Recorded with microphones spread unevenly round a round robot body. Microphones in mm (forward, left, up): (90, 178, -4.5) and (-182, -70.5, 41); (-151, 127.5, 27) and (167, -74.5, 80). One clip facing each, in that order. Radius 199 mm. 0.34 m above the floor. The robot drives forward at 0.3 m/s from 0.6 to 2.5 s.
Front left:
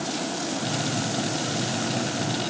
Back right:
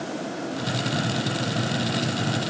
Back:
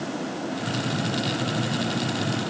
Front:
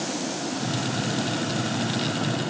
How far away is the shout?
I don't hear a shout.